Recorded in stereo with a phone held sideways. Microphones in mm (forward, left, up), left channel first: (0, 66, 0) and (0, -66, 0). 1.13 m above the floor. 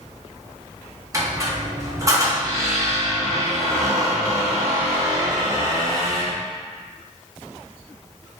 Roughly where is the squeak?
Right.